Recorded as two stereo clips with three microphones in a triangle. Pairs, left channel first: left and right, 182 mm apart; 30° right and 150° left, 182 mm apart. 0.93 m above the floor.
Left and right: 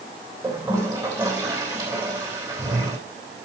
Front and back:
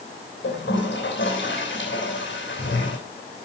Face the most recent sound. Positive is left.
turn(degrees=-20)